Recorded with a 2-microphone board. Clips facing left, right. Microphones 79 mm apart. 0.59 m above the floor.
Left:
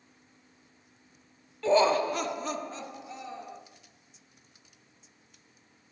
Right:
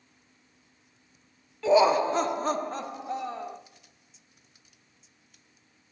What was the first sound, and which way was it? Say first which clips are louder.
Laughter: right 3 dB; 5° right (ahead or behind).